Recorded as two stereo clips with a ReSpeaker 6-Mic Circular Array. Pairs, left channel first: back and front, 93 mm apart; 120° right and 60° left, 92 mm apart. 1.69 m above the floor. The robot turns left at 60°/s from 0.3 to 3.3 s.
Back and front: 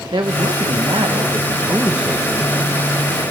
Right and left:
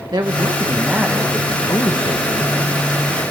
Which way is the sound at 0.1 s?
25° left.